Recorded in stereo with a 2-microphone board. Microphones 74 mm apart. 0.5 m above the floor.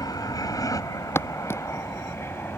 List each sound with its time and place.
0.0 s an aircraft: 60° left (ahead or behind); by 2.6 s 30° left (ahead or behind)
1.1 s footsteps: 35° left (ahead or behind)